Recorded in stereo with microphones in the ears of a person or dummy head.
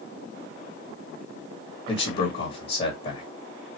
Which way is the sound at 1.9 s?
35° left (ahead or behind).